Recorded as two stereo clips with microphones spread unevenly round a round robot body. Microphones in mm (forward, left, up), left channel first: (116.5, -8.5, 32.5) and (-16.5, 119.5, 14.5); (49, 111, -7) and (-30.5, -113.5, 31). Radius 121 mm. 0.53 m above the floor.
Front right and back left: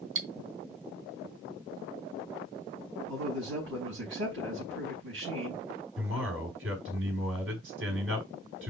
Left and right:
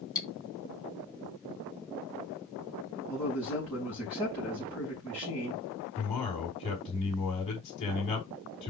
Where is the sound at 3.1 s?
150° left, 4.5 m.